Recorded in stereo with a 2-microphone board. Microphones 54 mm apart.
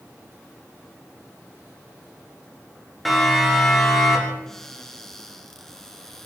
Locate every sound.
3.0 s a siren: centre (ahead or behind), 9 m; by 4.4 s 5° left (ahead or behind), 9.5 m
4.5 s a cupboard door: 10° left (ahead or behind), 4 m